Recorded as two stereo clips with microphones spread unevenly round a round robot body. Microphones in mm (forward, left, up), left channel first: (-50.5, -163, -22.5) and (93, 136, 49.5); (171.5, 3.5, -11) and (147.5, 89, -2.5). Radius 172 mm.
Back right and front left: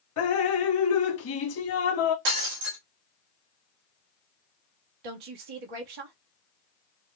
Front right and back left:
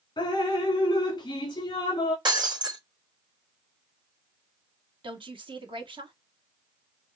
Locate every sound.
0.2 s dripping: 100° right, 1.7 m
2.2 s breaking glass: 75° left, 2.5 m
5.0 s a woman speaking: 85° left, 1.3 m